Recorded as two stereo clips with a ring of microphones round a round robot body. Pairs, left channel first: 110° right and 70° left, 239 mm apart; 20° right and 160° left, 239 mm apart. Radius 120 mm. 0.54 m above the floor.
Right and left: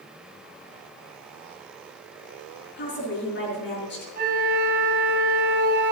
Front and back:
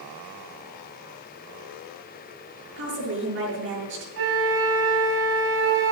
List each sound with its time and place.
2.8 s a woman speaking: 160° right, 8.5 m
4.2 s a flute: 125° left, 4 m